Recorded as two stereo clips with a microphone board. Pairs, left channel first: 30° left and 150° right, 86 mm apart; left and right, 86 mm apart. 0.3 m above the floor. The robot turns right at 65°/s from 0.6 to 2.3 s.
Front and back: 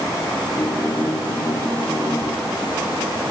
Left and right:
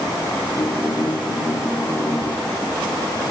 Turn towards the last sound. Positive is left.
No sound to turn to.